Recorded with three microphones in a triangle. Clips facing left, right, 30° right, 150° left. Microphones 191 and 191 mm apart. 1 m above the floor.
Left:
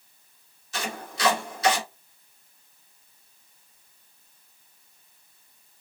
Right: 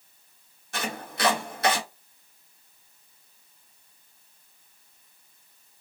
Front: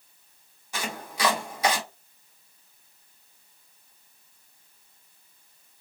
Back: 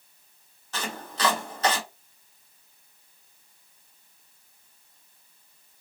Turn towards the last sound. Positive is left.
turn(degrees=-105)